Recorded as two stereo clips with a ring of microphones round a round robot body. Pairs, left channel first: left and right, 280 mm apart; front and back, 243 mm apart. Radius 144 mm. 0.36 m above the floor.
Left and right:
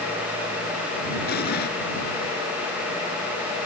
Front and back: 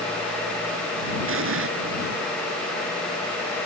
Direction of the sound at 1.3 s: 145° left.